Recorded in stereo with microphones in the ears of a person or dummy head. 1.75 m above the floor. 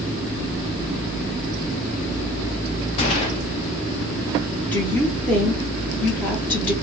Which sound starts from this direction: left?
A gunshot, at 3.0 s.